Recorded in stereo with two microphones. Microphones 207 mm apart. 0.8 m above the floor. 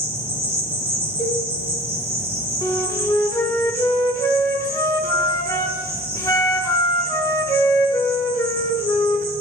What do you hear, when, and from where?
0.0 s an insect: 30° right (ahead or behind), 1.6 m
1.2 s a cowbell: 35° left (ahead or behind), 2.5 m
2.6 s a flute: 15° left (ahead or behind), 0.5 m